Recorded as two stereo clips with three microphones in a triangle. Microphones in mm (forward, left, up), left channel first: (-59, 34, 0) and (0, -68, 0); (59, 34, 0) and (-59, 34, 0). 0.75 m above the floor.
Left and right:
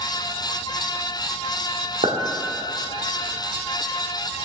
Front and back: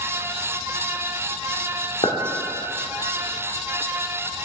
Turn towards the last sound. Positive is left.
turn(degrees=-35)